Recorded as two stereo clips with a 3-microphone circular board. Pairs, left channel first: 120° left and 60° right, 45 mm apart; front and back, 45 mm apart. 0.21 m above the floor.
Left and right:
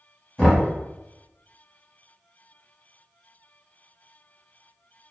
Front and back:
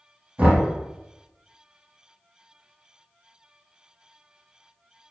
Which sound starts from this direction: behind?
Knocking, at 0.4 s.